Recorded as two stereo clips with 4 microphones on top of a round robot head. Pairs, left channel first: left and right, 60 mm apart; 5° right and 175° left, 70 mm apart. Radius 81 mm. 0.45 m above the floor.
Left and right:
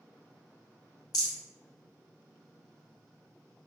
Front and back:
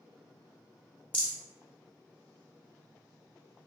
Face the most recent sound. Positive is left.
turn(degrees=65)